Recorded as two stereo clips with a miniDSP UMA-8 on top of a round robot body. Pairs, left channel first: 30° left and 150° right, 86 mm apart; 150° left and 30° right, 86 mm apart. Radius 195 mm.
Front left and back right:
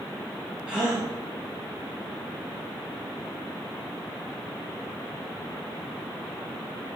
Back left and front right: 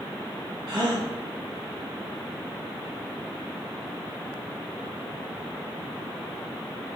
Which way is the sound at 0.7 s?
70° right.